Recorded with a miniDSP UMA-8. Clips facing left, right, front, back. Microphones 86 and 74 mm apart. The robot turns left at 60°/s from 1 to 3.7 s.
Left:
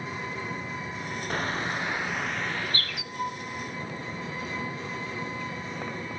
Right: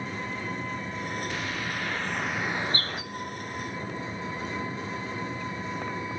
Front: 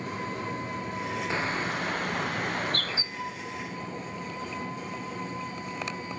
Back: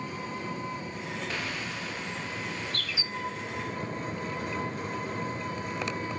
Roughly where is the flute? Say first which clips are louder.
Left 4 dB, back 1 dB; behind right.